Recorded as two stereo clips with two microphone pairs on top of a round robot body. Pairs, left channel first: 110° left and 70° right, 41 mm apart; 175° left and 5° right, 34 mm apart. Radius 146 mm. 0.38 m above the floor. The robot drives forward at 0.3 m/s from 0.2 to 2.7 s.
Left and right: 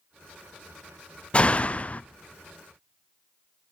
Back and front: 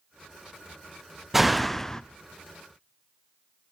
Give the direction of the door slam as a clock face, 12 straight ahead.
9 o'clock.